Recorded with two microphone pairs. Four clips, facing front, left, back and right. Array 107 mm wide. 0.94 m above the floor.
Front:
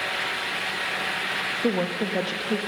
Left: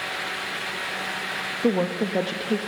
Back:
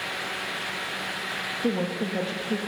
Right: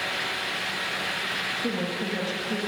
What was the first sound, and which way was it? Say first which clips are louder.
A woman speaking: left 8 dB, front 2 dB; 60° left.